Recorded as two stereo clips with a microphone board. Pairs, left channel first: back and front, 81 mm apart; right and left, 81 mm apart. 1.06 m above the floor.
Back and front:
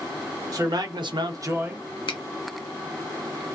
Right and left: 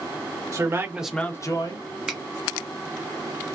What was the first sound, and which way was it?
A man speaking, 40° left.